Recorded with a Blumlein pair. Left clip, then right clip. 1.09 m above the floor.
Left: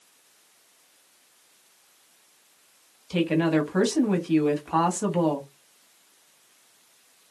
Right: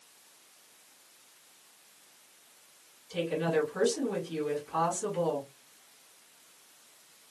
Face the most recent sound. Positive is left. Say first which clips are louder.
# left 6 dB
turn(degrees=40)